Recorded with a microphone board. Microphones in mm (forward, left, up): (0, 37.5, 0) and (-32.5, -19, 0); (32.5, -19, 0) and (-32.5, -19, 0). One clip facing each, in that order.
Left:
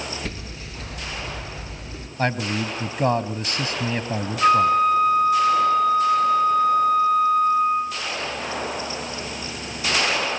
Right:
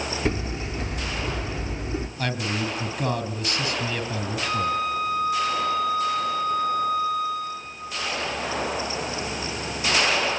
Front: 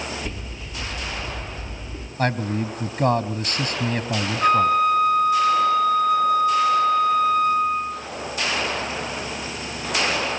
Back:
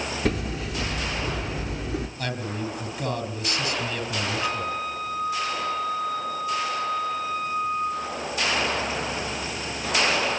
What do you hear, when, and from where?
0.2 s hammering: straight behind, 3.5 m
2.2 s a man speaking: 30° left, 2 m
4.4 s a flute: 30° left, 1.9 m